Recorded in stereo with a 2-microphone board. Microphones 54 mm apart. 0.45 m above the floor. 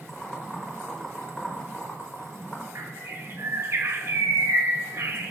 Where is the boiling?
10° left (ahead or behind), 1.2 m.